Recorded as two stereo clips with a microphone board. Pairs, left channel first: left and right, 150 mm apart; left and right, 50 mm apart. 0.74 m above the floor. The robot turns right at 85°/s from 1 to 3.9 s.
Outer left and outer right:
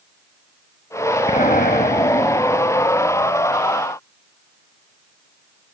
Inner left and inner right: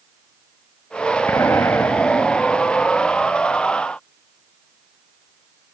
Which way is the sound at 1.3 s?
55° left.